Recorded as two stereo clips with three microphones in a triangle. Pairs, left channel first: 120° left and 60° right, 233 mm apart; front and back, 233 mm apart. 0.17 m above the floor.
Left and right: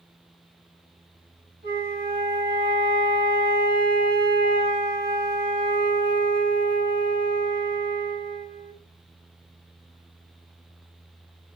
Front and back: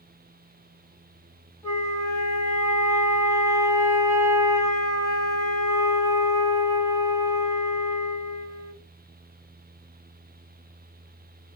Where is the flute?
70° right, 1.6 m.